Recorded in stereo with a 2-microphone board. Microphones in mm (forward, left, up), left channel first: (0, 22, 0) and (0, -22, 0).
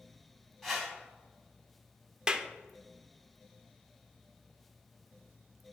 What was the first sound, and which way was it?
A whoosh, 5° left (ahead or behind).